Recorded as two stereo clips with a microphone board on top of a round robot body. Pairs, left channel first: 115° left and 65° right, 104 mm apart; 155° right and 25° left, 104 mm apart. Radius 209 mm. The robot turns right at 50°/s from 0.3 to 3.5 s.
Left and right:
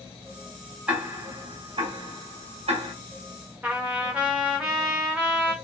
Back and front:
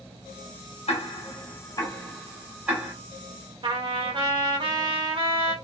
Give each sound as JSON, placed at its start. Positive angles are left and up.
{"t": 0.9, "sound": "ticking", "azimuth_deg": -145, "distance_m": 2.5}
{"t": 3.6, "sound": "a trumpet", "azimuth_deg": 10, "distance_m": 2.5}